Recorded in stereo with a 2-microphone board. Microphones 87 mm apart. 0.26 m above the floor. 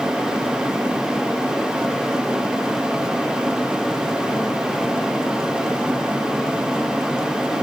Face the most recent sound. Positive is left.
No sound to turn to.